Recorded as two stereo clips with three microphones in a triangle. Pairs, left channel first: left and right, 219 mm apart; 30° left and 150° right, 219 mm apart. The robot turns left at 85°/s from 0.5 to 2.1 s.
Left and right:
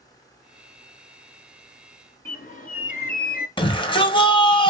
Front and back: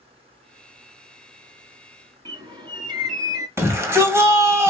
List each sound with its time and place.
2.2 s a bird: 140° left, 1.2 m
3.6 s a shout: 140° left, 1.4 m